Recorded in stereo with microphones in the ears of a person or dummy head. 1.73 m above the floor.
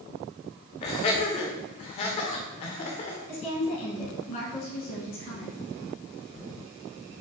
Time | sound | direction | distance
0.8 | laughter | 30° left (ahead or behind) | 0.5 m
3.3 | a woman speaking | 45° left (ahead or behind) | 1.3 m